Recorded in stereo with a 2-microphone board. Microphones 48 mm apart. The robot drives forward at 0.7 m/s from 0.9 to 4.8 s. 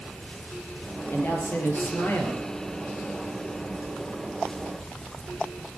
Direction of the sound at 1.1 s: 40° left (ahead or behind).